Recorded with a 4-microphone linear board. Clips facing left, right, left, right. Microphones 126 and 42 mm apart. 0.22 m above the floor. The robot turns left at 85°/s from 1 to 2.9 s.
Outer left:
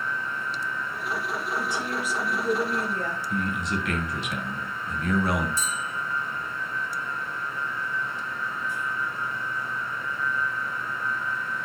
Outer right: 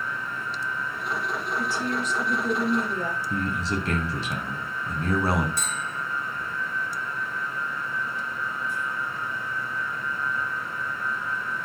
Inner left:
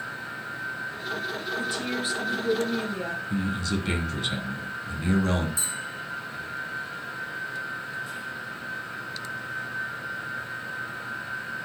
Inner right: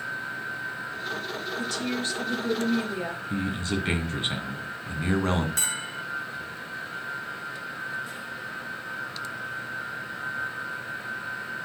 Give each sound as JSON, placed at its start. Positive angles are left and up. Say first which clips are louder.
{"t": 1.6, "sound": "a woman speaking", "louder": "outer right 2 dB, inner right 1 dB", "side_deg": 20, "distance_m": 1.6}
{"t": 3.3, "sound": "a man speaking", "louder": "even, even", "side_deg": -30, "distance_m": 2.0}
{"t": 5.6, "sound": "a bell", "louder": "even, inner right 2 dB", "side_deg": -65, "distance_m": 0.7}